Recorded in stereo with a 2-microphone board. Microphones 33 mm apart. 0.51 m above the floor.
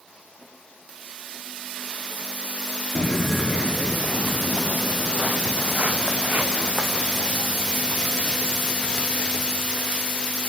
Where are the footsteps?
25° left (ahead or behind), 0.5 m; by 9.6 s 60° right (ahead or behind), 5 m.